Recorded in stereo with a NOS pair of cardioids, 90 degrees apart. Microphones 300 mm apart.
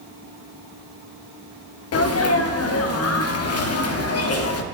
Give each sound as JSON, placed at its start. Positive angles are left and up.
{"t": 1.9, "sound": "a sneeze", "azimuth_deg": 55, "distance_m": 0.9}